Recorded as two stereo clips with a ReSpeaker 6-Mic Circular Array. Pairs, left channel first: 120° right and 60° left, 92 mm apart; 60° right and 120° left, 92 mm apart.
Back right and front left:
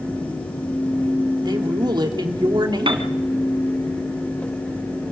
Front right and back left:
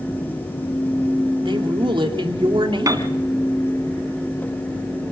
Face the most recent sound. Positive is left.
turn(degrees=75)